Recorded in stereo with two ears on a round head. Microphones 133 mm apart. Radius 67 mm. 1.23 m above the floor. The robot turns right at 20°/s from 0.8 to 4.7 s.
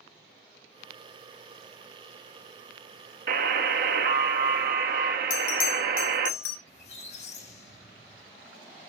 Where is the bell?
65° left (ahead or behind), 1.7 m.